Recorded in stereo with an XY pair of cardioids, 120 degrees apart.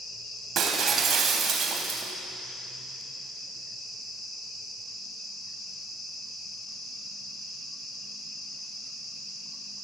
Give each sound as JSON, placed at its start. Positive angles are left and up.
{"t": 0.6, "sound": "breaking glass", "azimuth_deg": -55, "distance_m": 2.0}